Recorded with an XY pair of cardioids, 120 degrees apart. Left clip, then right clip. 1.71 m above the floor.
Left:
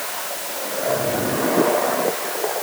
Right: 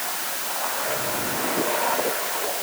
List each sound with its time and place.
Only background noise.